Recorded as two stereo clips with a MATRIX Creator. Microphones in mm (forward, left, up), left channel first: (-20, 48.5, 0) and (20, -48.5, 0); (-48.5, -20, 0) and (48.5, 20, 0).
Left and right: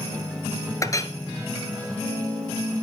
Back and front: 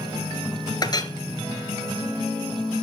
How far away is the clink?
About 1.0 m.